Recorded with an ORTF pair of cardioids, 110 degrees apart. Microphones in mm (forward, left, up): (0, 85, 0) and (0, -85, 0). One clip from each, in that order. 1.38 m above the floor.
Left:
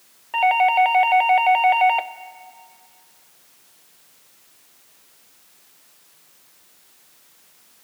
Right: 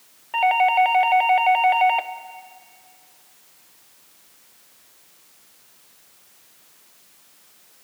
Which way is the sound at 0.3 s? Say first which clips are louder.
Left 1 dB; 5° left.